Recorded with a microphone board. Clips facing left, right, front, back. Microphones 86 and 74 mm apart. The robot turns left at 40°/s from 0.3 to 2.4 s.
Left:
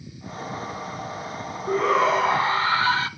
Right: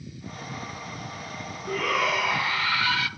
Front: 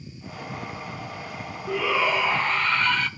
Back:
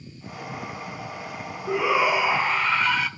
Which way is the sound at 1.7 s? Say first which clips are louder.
Left 6 dB, back 2 dB; 130° left.